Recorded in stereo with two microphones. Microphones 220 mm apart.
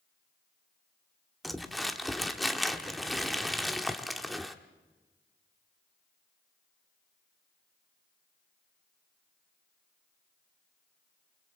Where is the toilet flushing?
No toilet flushing in this recording.